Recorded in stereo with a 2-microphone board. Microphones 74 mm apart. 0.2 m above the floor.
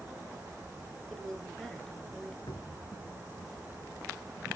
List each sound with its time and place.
1.1 s a woman speaking: 5° left (ahead or behind), 3 m
2.5 s a cupboard door: 70° left (ahead or behind), 0.8 m